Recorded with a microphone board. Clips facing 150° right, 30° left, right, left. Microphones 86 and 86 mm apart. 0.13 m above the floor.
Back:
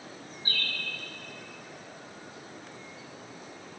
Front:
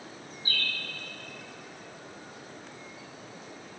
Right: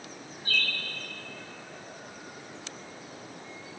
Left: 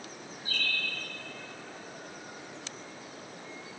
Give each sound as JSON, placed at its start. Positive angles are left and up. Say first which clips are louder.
{"t": 0.5, "sound": "a bird", "louder": "front 1 dB, right 4 dB", "azimuth_deg": -100, "distance_m": 1.1}